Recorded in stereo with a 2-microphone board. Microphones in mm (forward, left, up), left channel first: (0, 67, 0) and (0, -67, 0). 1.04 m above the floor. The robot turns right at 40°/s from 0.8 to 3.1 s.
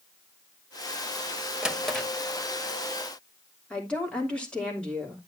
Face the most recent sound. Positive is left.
turn(degrees=5)  # may be behind; listen again after turning